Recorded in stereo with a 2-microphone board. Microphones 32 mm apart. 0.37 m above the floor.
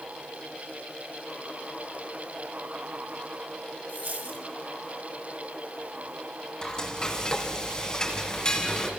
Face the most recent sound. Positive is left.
turn(degrees=25)  # may be behind; listen again after turning